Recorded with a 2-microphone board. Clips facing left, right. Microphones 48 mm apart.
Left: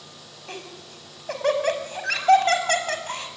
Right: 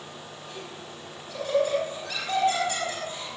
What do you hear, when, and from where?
0.5 s laughter: 55° left (ahead or behind), 5 m